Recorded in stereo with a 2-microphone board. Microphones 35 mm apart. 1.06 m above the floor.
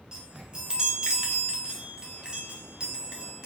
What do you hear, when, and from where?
0.1 s a chime: 25° right (ahead or behind), 0.6 m